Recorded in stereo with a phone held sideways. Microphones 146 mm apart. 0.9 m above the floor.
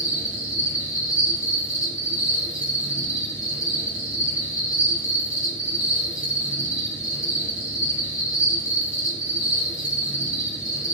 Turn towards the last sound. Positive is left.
turn(degrees=20)  # may be behind; listen again after turning